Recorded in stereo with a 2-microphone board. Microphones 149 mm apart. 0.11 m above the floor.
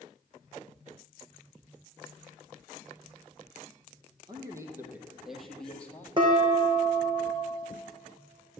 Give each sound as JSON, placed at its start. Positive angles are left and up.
{"t": 4.3, "sound": "a man speaking", "side_deg": -25, "distance_m": 2.5}
{"t": 6.2, "sound": "dishes clattering", "side_deg": -35, "distance_m": 4.0}